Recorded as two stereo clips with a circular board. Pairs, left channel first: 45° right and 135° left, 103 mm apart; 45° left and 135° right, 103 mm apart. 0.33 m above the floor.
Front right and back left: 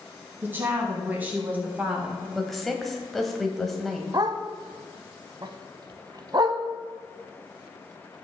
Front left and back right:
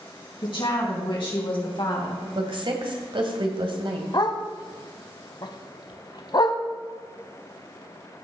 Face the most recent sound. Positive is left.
turn(degrees=90)